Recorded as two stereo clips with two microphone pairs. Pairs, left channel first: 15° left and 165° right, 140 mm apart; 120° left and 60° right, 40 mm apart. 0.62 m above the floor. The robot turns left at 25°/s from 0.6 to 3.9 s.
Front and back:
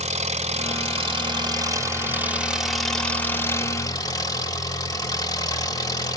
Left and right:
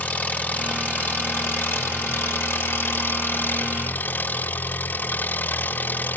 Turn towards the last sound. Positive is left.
turn(degrees=80)